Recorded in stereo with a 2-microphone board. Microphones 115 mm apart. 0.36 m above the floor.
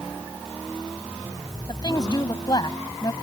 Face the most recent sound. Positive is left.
turn(degrees=40)  # may be behind; listen again after turning